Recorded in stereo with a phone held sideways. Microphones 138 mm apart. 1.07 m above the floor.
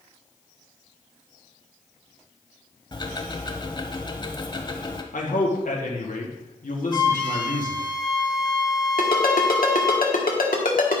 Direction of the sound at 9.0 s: 80° left.